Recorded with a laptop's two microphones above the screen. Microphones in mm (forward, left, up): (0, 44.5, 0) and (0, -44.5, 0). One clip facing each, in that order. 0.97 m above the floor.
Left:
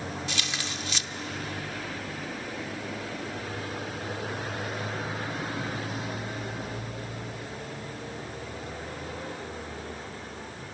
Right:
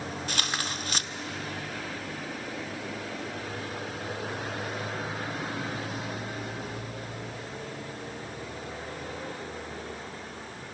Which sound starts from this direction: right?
Tearing paper, at 0.3 s.